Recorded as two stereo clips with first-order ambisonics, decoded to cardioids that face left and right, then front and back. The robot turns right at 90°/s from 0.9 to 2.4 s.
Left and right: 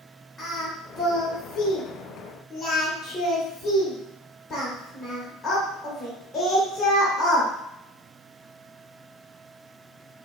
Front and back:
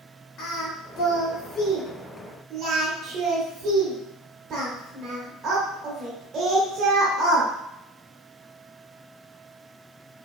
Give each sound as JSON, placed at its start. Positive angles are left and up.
{"t": 0.4, "sound": "singing", "azimuth_deg": 10, "distance_m": 1.0}